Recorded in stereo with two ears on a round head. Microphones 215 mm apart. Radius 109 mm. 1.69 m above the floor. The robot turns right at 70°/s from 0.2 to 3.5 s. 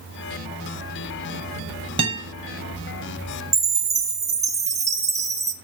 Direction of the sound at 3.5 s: 15° right (ahead or behind).